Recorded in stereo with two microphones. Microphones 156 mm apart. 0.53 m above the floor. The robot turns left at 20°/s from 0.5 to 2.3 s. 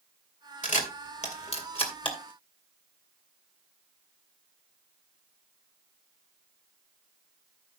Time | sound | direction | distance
0.6 | a camera shutter | 55° left (ahead or behind) | 2.5 m